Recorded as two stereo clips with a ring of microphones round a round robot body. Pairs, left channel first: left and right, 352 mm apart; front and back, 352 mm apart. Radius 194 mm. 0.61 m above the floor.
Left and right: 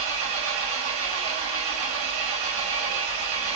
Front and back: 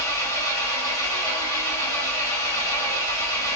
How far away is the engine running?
About 3 m.